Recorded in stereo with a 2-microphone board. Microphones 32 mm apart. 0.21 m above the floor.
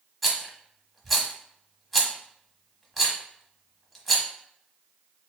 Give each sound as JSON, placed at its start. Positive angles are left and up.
{"t": 0.2, "sound": "a rattle", "side_deg": 0, "distance_m": 1.2}